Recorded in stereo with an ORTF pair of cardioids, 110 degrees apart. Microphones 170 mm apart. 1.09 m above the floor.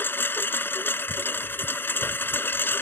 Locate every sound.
0.0 s a lawn mower: 10° left